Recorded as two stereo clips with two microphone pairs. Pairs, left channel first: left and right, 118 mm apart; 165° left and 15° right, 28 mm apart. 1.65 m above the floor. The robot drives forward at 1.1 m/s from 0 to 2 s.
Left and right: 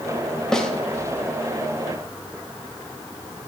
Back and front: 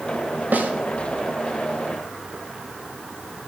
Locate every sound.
0.5 s a snare drum: 5° left, 0.8 m